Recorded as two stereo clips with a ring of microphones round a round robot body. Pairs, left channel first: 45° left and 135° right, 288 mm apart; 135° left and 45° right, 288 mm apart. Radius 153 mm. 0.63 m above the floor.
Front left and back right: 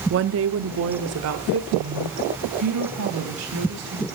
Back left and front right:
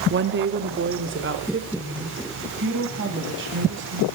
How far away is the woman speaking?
About 0.9 m.